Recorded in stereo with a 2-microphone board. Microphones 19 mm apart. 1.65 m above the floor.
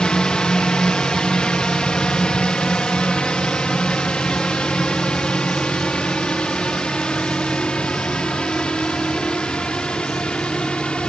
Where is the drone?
60° left (ahead or behind); by 11.1 s 70° left (ahead or behind).